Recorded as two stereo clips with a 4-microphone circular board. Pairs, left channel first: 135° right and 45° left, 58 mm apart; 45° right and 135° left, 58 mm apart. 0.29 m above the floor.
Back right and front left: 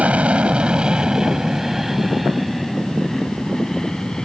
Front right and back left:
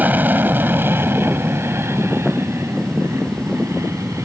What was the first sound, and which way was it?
An aircraft, 95° left.